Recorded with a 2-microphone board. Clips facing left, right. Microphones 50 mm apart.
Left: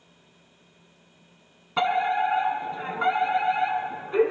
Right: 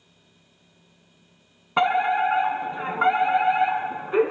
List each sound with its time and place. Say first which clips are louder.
1.8 s a fire alarm: right 3 dB; 25° right (ahead or behind), 1.3 m